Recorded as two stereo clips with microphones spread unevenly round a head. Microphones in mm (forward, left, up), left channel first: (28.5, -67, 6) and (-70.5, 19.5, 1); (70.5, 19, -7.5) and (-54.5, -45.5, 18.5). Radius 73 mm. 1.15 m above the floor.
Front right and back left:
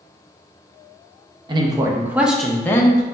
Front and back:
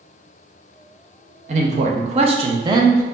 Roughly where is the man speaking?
Behind.